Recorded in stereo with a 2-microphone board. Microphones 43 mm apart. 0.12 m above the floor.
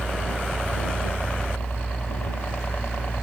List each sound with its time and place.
0.0 s a helicopter: 25° left (ahead or behind); by 3.2 s 45° left (ahead or behind)